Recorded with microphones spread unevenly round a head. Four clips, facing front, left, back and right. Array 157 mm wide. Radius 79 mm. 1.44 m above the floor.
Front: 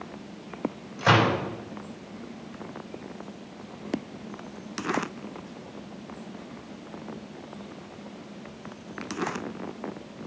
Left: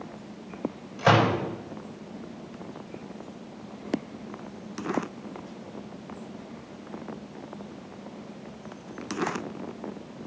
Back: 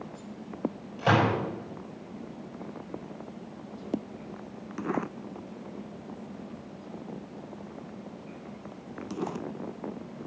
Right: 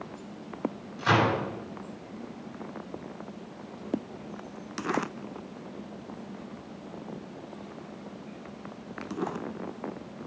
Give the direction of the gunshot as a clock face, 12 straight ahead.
9 o'clock.